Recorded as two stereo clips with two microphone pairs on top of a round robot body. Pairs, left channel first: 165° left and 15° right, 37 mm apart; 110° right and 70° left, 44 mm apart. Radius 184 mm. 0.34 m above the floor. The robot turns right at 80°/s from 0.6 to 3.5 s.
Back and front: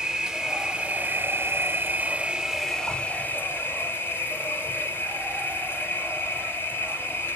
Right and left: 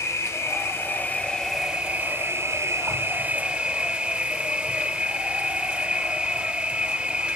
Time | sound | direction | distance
0.0 | an insect | 90° right | 0.9 m